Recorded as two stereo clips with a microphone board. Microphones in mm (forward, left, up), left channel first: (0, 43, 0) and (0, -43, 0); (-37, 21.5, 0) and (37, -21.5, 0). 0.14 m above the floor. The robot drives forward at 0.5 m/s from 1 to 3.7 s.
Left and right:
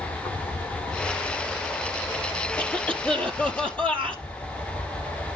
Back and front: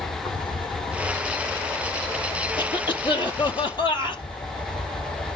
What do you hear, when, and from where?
0.0 s an insect: 125° left, 8.5 m; by 5.4 s 130° left, 9 m
2.6 s a cough: 165° left, 4 m